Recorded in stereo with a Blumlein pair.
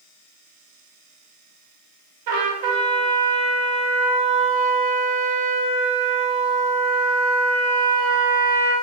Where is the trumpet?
50° right, 0.8 m.